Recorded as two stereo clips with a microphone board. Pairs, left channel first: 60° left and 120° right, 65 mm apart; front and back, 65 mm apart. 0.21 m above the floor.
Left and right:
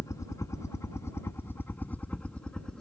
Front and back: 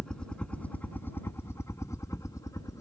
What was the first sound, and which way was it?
A helicopter, 75° left.